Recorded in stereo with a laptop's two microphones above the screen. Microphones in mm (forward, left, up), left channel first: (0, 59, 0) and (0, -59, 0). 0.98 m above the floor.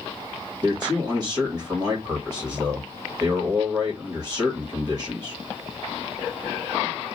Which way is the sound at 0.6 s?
30° right (ahead or behind).